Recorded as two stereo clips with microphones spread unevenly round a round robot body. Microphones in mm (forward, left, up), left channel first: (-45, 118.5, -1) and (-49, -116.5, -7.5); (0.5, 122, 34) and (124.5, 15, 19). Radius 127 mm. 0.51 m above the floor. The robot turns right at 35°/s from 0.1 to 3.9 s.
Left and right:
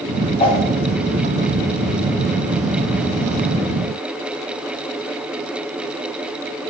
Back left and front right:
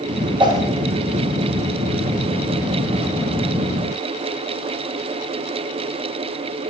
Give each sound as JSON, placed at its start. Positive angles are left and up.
{"t": 0.4, "sound": "a whoosh", "azimuth_deg": 20, "distance_m": 1.8}